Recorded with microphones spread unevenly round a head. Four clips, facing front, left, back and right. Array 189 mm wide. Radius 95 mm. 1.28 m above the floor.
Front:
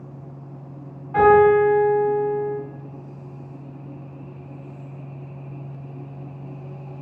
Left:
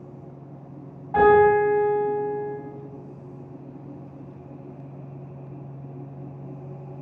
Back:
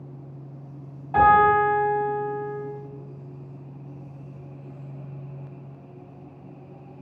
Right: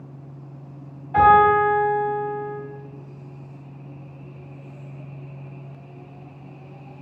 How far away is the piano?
About 1.3 m.